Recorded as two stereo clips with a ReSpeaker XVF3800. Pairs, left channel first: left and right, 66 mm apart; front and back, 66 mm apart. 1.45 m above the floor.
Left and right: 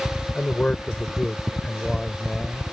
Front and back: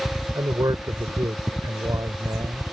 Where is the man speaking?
160° left; by 2.6 s straight behind.